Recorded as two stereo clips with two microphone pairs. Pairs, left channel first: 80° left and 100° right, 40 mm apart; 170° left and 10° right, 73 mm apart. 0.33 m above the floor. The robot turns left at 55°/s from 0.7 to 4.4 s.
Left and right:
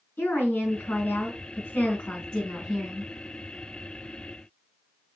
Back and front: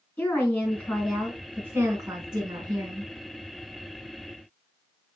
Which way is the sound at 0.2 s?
105° left.